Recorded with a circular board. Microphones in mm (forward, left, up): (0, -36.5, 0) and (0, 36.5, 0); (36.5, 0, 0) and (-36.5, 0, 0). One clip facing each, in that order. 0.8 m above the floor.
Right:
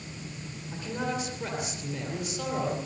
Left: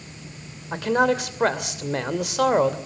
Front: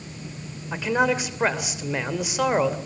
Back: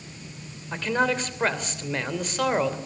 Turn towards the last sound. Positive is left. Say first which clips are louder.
# left 12 dB, front 2 dB
turn(degrees=80)